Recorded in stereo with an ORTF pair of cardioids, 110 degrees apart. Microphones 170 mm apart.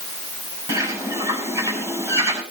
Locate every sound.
0.7 s a bird: 20° right, 6.5 m